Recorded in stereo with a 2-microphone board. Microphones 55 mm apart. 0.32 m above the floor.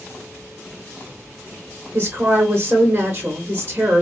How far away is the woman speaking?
About 1.0 m.